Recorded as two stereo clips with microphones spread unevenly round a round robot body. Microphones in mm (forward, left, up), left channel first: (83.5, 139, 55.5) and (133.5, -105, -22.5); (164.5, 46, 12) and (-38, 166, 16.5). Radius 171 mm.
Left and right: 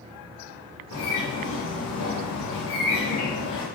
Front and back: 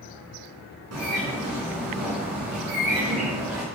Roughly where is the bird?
Behind left.